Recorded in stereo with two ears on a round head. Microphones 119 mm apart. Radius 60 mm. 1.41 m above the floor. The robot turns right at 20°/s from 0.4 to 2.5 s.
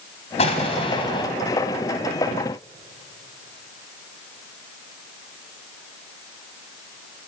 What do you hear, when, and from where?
0.4 s an explosion: 50° left (ahead or behind), 3 m; by 1.3 s 35° left (ahead or behind), 3 m